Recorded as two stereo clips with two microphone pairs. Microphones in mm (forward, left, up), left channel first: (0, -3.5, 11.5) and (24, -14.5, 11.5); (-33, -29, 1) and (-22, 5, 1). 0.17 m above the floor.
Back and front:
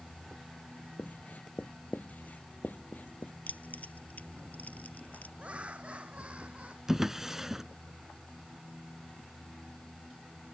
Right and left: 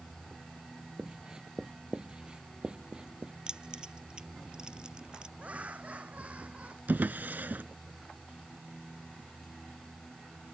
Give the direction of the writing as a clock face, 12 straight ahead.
7 o'clock.